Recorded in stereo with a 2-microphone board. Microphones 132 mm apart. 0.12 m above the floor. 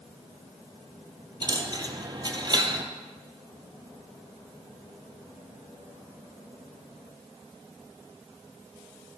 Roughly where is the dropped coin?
Right.